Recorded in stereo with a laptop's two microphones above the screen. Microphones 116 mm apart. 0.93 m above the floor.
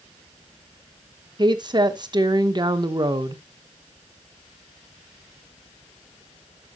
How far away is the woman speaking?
About 1.0 m.